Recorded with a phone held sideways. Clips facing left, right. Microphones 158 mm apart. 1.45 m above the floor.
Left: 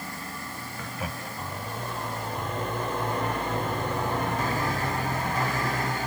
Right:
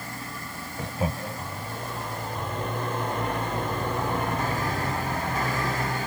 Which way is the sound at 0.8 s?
30° right (ahead or behind).